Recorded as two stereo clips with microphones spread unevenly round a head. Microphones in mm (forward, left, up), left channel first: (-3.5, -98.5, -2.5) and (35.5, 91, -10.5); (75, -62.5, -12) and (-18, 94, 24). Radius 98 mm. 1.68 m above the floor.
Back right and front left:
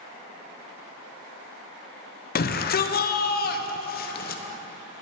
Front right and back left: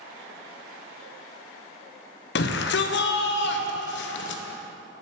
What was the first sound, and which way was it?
A shout, 85° right.